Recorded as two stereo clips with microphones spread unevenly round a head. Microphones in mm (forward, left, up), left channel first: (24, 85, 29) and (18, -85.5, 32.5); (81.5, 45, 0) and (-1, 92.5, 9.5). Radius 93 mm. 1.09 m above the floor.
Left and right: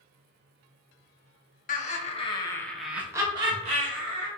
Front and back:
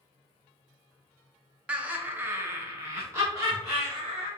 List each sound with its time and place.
1.7 s laughter: 70° left, 1.0 m; by 4.3 s 140° right, 1.4 m